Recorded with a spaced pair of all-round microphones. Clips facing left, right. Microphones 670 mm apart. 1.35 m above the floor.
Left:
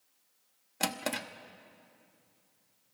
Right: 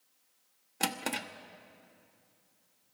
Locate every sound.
0.8 s a drawer: 10° left (ahead or behind), 0.8 m